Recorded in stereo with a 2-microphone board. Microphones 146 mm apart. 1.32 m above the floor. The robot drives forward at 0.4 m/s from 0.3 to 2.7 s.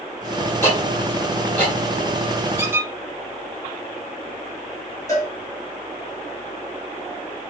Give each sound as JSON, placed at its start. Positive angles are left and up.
{"t": 0.6, "sound": "ticking", "side_deg": 15, "distance_m": 1.4}
{"t": 2.6, "sound": "a squeak", "side_deg": -15, "distance_m": 0.7}
{"t": 5.1, "sound": "a cowbell", "side_deg": 20, "distance_m": 1.2}